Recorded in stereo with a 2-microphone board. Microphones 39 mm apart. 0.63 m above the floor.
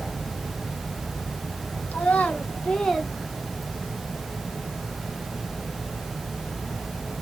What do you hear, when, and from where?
1.9 s a child speaking: 45° left (ahead or behind), 1.8 m; by 4.0 s 50° right (ahead or behind), 1.1 m